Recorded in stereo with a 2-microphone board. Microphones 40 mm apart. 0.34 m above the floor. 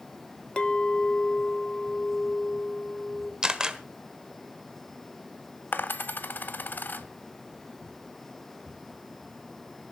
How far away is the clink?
About 0.7 m.